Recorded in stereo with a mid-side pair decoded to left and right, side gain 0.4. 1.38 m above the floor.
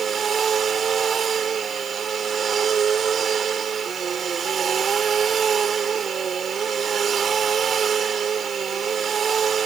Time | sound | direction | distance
0.0 | a machine running | 55° right | ?